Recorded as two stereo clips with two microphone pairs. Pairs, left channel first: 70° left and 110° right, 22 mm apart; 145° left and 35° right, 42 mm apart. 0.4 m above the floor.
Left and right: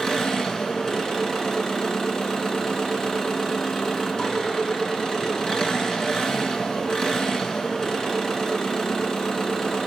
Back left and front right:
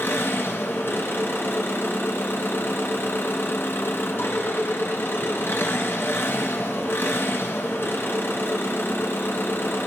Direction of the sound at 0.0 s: 130° left.